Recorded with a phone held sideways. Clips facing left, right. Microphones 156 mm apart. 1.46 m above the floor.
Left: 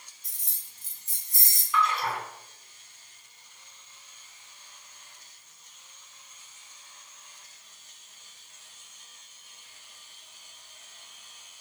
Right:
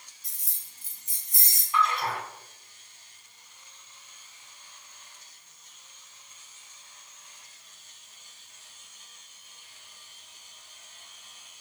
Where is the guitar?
No guitar in this recording.